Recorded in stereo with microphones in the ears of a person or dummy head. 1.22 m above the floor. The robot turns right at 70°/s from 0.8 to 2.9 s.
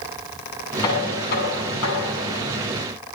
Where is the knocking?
20° left, 8.5 m; by 2.5 s 140° left, 8.5 m.